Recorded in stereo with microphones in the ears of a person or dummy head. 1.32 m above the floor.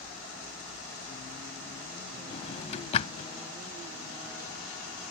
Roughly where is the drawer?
Left.